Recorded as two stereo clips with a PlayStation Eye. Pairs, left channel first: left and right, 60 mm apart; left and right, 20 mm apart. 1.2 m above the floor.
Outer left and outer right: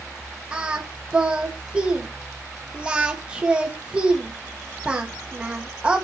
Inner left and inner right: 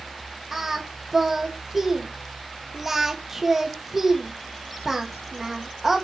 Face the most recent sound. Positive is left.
turn(degrees=-20)  # may be behind; listen again after turning